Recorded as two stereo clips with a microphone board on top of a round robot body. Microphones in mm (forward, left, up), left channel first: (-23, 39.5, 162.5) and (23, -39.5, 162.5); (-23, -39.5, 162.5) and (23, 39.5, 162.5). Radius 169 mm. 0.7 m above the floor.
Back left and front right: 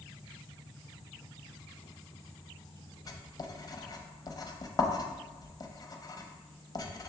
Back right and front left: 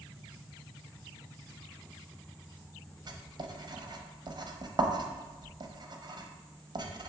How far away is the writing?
About 0.7 m.